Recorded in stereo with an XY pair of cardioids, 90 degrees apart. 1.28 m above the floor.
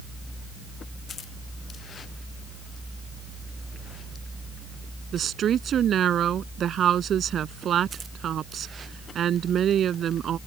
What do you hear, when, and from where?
5.1 s a woman speaking: 65° right